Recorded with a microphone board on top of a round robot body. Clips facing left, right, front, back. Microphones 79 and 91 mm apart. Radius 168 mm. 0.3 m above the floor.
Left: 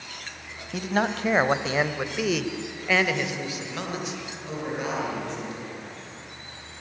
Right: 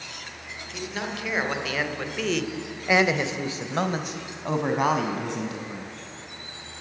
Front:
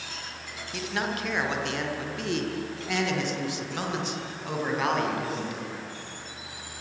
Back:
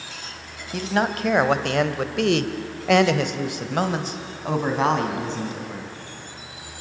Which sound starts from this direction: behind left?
A man speaking, at 0.7 s.